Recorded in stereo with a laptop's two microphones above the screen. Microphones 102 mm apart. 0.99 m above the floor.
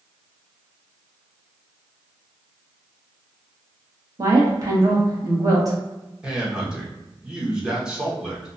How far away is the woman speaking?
About 1.2 m.